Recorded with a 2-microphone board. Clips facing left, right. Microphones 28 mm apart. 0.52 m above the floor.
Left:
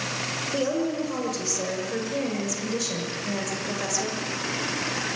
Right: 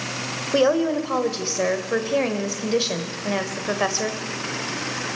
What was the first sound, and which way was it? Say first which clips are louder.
A woman speaking: right 8 dB; 45° right (ahead or behind).